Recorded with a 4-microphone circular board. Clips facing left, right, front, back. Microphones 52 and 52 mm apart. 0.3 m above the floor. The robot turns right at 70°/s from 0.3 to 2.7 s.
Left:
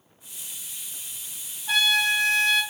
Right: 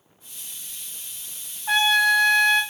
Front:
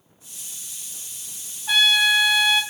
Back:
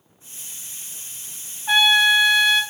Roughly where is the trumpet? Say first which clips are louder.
Right 4 dB, back 2 dB; behind right.